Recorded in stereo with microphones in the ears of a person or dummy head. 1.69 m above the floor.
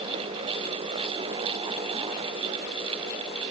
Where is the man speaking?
No man speaking in this recording.